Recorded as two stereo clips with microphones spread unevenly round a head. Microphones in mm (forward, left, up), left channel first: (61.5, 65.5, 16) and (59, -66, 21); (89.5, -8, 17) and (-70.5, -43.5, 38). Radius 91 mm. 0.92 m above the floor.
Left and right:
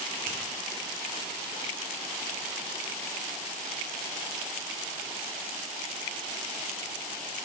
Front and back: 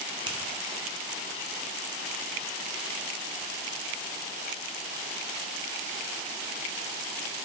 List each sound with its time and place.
0.3 s a finger snap: 105° right, 0.7 m